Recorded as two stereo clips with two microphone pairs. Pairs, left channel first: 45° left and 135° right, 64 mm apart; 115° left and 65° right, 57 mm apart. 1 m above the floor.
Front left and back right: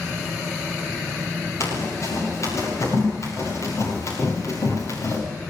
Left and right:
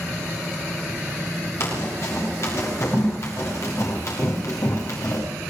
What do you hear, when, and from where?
1.6 s running footsteps: 80° left, 9 m; by 5.2 s 85° left, 6 m